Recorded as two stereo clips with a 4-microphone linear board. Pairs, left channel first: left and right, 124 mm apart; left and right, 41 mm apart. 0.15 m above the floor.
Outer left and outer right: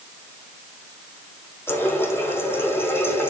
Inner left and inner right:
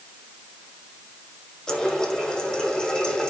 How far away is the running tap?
About 5 m.